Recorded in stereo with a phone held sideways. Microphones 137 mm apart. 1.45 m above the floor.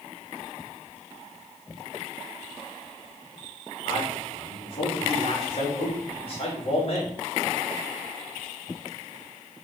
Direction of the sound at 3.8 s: 45° left (ahead or behind).